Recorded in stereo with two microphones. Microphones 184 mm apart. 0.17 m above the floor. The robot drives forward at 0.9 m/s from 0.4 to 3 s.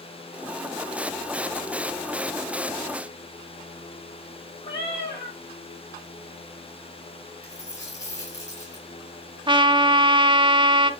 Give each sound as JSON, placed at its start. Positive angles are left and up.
{"t": 4.6, "sound": "a cat meowing", "side_deg": 30, "distance_m": 3.0}
{"t": 7.4, "sound": "a dropped coin", "side_deg": 15, "distance_m": 3.0}
{"t": 9.5, "sound": "a trumpet", "side_deg": -25, "distance_m": 0.6}